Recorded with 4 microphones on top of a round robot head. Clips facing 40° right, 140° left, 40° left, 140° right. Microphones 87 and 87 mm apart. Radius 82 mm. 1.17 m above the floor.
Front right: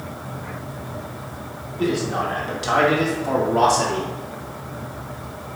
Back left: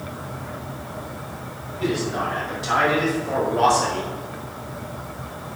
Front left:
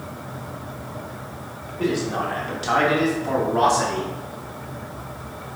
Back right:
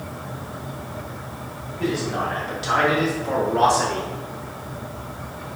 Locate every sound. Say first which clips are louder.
1.8 s a man speaking: front right 2 dB, front left 1 dB; 5° left, 3.5 m; by 4.1 s 40° right, 2.5 m